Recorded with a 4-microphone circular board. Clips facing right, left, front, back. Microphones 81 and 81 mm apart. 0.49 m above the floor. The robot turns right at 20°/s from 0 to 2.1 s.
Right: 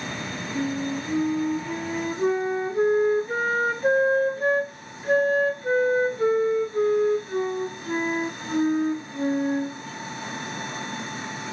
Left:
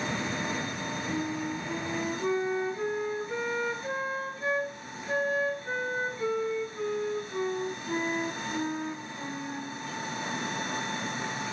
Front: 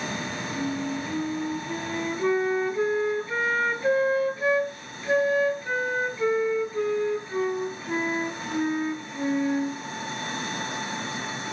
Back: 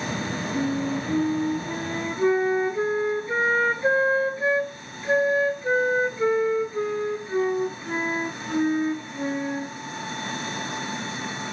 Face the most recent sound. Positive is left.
turn(degrees=-120)